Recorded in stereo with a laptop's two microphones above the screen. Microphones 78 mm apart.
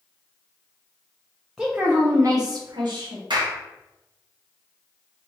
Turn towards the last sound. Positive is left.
turn(degrees=-85)